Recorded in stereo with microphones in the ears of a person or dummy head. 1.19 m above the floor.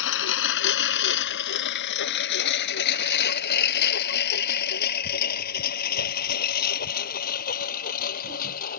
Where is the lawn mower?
70° left (ahead or behind); by 8.8 s 45° left (ahead or behind).